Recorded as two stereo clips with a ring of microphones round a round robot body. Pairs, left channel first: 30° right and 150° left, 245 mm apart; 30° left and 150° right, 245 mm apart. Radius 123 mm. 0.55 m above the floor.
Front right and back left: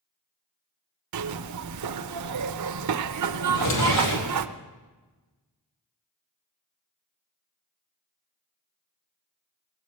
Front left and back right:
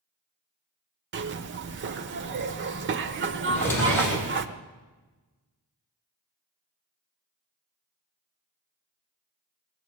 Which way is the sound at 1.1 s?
165° left.